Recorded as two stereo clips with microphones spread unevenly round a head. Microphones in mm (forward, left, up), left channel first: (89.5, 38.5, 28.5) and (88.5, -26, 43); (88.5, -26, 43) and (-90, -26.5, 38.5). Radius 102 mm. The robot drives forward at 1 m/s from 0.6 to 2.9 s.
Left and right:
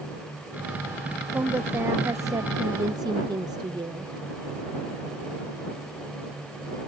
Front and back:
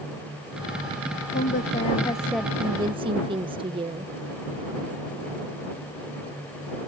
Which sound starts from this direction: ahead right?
A woman speaking, at 1.3 s.